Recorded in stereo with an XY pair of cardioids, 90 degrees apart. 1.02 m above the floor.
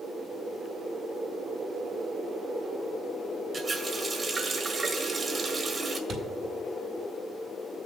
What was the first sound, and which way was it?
A running tap, 35° right.